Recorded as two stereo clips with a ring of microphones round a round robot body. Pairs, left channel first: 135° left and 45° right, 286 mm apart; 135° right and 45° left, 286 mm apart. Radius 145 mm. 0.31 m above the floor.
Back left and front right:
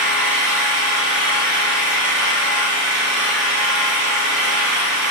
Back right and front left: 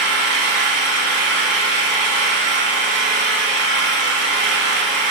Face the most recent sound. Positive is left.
turn(degrees=0)